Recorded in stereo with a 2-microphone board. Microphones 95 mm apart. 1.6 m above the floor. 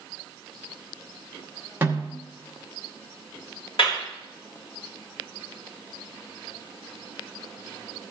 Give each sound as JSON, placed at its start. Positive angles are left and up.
{"t": 1.8, "sound": "a snare drum", "side_deg": -25, "distance_m": 2.0}
{"t": 3.8, "sound": "a clap", "side_deg": 75, "distance_m": 2.5}